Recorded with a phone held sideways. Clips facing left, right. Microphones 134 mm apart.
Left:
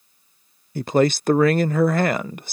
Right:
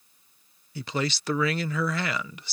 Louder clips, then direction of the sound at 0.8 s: Left 12 dB; 50° left (ahead or behind).